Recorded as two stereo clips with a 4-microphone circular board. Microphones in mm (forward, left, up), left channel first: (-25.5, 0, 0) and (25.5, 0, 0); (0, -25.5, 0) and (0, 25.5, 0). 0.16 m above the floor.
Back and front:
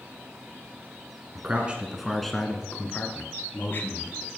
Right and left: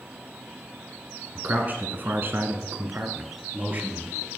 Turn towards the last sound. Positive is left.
turn(degrees=140)